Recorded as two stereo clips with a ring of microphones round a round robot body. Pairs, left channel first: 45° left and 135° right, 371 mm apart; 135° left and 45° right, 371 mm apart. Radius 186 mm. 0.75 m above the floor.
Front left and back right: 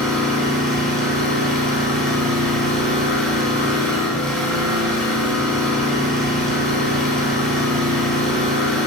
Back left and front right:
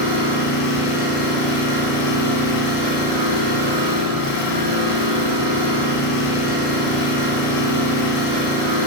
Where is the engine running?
135° left, 3.5 m.